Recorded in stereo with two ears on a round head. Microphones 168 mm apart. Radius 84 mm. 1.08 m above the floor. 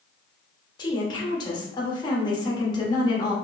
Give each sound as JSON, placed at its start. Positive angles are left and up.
{"t": 0.8, "sound": "a woman speaking", "side_deg": 25, "distance_m": 1.3}